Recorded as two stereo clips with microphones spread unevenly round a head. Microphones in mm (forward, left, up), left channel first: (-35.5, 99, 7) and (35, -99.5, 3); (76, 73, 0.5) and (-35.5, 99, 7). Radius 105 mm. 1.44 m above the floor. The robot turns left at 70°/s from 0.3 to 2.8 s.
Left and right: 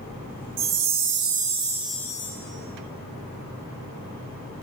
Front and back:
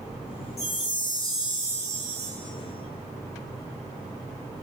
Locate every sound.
0.6 s a chime: 65° right, 1.1 m; by 2.3 s 170° left, 1.1 m